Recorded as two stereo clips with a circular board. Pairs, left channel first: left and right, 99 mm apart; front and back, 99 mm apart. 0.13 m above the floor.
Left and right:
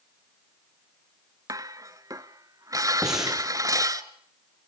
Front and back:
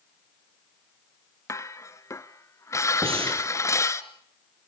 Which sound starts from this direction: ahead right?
Dishes clattering, at 1.5 s.